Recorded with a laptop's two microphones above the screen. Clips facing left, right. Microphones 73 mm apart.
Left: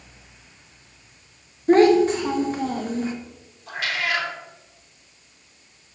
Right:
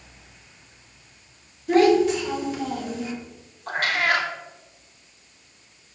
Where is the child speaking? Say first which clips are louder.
Left 2 dB; 40° left (ahead or behind), 0.7 m.